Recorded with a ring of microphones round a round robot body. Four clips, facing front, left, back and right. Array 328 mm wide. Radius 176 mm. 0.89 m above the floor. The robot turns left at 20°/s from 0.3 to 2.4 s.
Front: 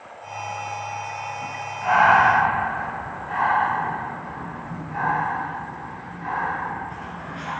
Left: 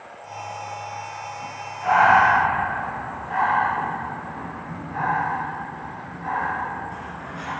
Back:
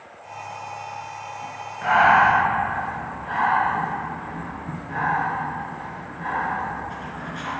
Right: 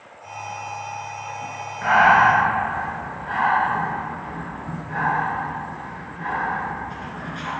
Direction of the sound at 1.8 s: 120° right.